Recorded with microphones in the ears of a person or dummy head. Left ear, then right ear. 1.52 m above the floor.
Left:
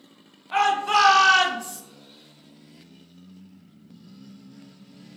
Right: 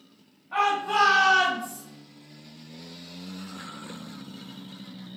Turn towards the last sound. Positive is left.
turn(degrees=20)  # may be behind; listen again after turning